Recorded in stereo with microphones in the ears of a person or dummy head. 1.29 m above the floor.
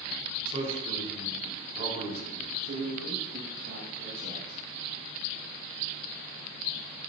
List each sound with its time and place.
0.5 s a man speaking: 40° right (ahead or behind), 3.5 m
2.6 s a man speaking: 55° right (ahead or behind), 1.4 m